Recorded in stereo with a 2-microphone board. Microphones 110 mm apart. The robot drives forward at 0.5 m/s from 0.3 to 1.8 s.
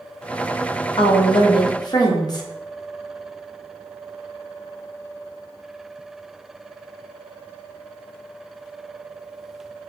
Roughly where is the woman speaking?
Left.